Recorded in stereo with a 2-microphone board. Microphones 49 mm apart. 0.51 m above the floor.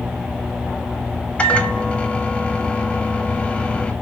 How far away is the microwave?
About 1.1 m.